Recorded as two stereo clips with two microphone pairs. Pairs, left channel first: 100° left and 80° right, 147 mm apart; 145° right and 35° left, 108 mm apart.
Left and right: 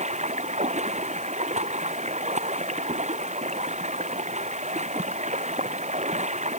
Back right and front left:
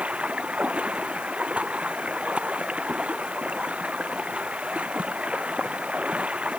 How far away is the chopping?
No chopping in this recording.